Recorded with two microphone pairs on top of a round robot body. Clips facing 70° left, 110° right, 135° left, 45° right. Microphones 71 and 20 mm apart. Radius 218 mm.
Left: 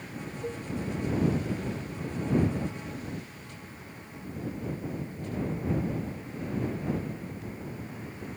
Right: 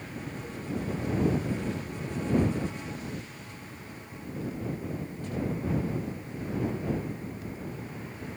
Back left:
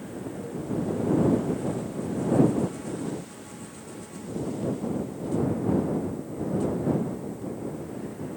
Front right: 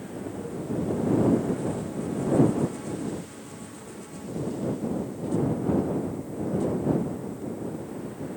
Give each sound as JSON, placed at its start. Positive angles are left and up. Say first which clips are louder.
{"t": 0.4, "sound": "a cowbell", "louder": "left 4 dB, even", "azimuth_deg": 60}